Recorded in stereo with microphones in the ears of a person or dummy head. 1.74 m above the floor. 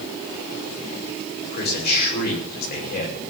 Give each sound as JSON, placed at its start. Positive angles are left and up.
{"t": 1.5, "sound": "a man speaking", "side_deg": 55, "distance_m": 5.5}